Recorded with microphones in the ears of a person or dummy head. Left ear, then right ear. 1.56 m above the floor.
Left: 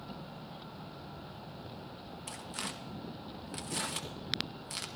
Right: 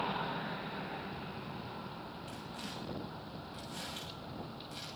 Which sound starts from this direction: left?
Tearing paper, at 2.3 s.